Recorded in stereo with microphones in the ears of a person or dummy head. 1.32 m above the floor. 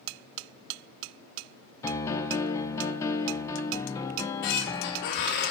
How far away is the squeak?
About 1.2 m.